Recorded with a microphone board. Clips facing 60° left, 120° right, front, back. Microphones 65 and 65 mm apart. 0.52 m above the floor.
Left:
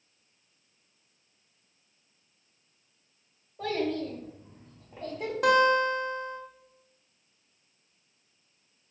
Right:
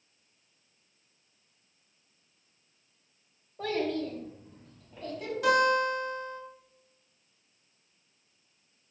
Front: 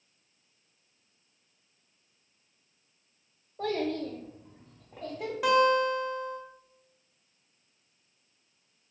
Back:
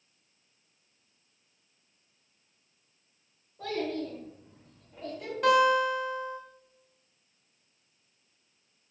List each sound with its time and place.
3.6 s a child speaking: 40° right, 0.8 m; by 5.3 s 30° left, 1.4 m
5.4 s a guitar: 85° left, 1.1 m